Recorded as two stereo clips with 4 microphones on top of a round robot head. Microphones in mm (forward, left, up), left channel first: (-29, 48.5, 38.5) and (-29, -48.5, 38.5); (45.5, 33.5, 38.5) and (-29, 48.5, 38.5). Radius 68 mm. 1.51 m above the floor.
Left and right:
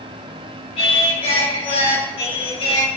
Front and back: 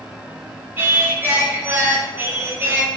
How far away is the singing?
About 6 m.